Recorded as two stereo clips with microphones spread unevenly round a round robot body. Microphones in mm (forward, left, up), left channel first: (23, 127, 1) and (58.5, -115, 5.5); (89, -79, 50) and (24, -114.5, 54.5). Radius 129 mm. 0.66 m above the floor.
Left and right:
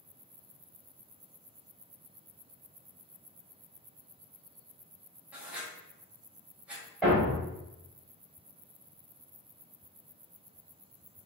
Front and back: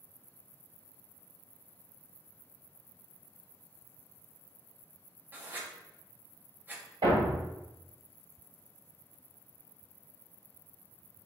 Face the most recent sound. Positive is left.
turn(degrees=-170)